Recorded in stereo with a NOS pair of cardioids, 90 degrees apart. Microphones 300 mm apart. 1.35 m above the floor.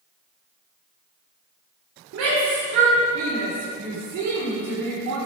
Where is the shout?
55° right, 3.5 m; by 5.2 s 80° right, 4 m.